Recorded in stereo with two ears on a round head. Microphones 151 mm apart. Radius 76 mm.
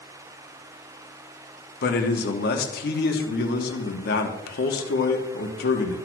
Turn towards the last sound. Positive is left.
turn(degrees=60)  # may be behind; listen again after turning